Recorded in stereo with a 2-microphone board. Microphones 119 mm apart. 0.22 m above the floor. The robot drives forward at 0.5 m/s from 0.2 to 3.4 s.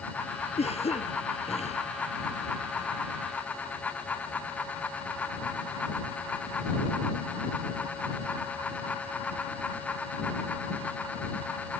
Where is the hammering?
I don't hear hammering.